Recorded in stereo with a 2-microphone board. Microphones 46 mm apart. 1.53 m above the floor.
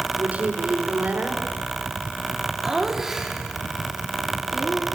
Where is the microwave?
No microwave in this recording.